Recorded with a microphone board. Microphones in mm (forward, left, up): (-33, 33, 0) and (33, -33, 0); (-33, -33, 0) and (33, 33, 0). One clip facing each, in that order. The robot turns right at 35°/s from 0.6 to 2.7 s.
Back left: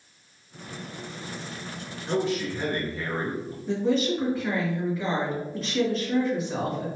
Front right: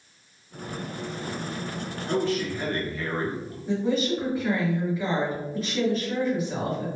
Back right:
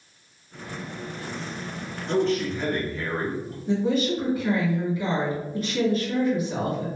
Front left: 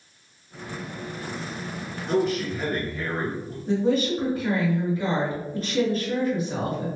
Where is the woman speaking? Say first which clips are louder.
Back left 1 dB, front left 1 dB; 35° left, 1.5 m.